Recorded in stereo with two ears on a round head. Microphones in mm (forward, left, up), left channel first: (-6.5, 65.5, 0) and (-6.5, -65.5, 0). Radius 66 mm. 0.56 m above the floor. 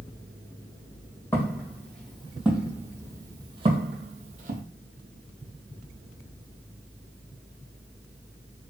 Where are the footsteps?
15° left (ahead or behind), 1.5 m; by 4.6 s 60° right (ahead or behind), 1.2 m.